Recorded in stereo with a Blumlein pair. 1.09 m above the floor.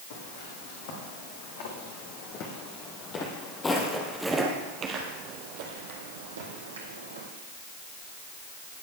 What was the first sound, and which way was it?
Footsteps, 55° left.